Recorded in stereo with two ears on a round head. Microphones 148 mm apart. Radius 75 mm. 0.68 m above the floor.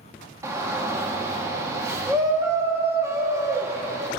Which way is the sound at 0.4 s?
15° right (ahead or behind).